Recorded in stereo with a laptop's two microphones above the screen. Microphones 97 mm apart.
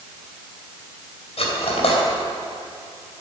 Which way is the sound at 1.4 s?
75° left (ahead or behind).